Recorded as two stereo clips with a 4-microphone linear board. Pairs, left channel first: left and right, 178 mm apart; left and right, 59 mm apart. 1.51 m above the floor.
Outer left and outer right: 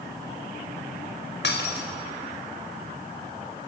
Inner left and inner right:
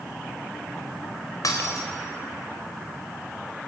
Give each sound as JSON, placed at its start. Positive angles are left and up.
{"t": 1.4, "sound": "breaking glass", "side_deg": 80, "distance_m": 4.5}